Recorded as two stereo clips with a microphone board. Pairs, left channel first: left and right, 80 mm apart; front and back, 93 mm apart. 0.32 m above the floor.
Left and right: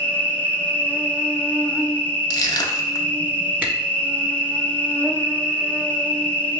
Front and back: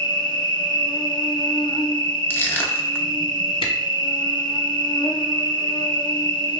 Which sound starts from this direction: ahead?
A camera shutter, at 3.6 s.